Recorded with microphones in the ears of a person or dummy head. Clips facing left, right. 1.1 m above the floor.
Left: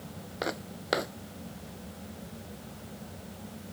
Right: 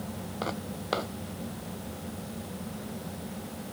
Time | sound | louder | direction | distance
0.4 | footsteps | left 1 dB | 20° left (ahead or behind) | ?